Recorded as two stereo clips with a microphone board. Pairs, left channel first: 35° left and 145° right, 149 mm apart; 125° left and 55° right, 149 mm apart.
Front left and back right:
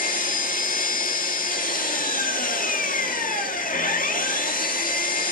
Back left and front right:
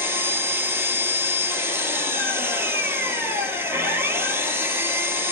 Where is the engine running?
20° left, 0.9 m.